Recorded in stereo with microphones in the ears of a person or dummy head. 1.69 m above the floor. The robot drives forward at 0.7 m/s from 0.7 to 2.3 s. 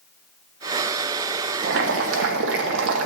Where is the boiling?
55° right (ahead or behind), 1.2 m; by 3.1 s 70° right (ahead or behind), 1.1 m.